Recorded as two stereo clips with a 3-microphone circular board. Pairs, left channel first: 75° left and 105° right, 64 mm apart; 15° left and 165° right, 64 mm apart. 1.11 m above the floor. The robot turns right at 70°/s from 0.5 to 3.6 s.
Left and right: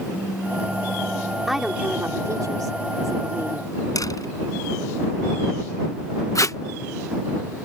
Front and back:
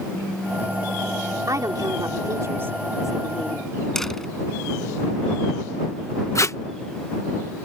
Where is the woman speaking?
165° left; by 3.7 s 45° right.